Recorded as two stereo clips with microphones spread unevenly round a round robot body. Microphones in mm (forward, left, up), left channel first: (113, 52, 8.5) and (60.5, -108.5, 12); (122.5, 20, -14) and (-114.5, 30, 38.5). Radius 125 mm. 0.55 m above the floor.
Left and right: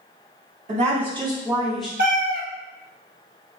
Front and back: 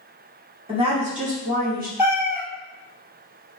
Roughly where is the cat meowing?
Right.